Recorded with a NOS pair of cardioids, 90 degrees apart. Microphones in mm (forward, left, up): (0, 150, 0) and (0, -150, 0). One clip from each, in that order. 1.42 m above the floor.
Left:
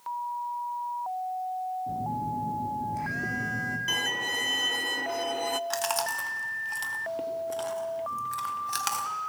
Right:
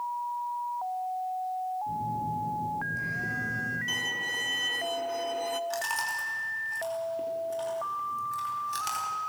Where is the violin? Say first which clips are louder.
Left 5 dB; 25° left, 0.6 m.